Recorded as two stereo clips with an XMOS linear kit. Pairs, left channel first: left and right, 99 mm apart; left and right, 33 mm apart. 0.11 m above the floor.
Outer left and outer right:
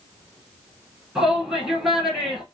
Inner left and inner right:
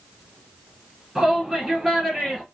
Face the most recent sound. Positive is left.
turn(degrees=-5)  # may be behind; listen again after turning